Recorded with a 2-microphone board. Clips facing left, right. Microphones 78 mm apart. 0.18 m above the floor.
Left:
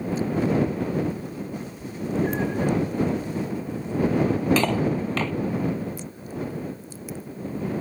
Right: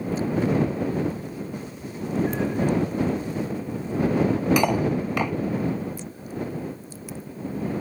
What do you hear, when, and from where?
1.6 s a cat meowing: 35° left (ahead or behind); by 2.7 s 20° left (ahead or behind)
4.6 s cutlery clinking: 15° right (ahead or behind)